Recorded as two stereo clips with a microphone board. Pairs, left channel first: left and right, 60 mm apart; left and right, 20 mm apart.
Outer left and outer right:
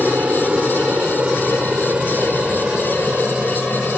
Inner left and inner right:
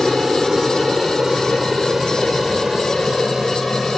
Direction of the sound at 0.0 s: 20° right (ahead or behind).